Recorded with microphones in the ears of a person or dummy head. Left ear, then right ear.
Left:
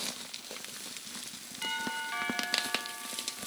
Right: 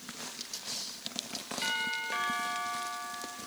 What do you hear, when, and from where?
1.6 s a doorbell: 15° right (ahead or behind), 3.5 m